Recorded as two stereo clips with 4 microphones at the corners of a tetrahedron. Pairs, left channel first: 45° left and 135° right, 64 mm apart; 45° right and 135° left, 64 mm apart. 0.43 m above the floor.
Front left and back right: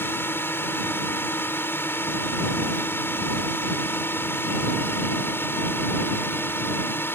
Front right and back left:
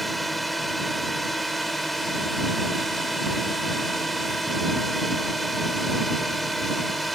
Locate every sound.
0.0 s a drone: 45° left